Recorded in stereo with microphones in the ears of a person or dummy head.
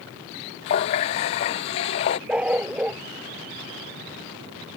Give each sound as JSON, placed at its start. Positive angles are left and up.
{"t": 0.7, "sound": "a running tap", "side_deg": 25}
{"t": 2.3, "sound": "a dog barking", "side_deg": -5}